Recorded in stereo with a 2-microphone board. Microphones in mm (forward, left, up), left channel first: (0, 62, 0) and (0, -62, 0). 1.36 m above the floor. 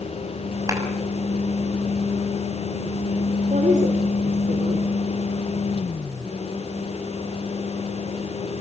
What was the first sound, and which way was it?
A clap, 25° right (ahead or behind).